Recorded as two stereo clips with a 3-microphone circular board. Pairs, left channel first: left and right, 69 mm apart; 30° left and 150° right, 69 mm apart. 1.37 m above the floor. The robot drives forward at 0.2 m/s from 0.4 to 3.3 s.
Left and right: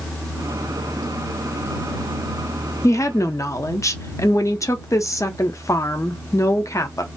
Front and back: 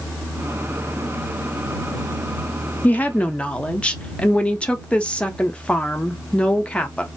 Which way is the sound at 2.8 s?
80° left.